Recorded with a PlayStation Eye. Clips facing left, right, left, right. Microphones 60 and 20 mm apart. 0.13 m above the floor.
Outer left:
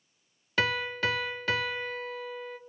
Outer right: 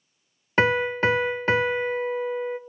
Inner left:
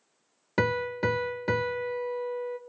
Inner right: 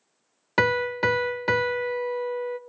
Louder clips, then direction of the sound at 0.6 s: Outer right 8 dB, inner right 5 dB; 30° right (ahead or behind).